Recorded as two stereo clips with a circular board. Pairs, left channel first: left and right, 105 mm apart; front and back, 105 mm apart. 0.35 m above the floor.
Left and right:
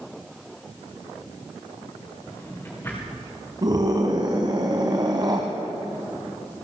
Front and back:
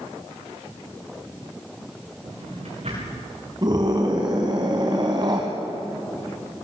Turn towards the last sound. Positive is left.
turn(degrees=-135)